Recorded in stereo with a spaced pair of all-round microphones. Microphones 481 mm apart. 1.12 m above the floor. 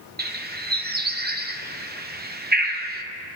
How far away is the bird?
About 0.7 m.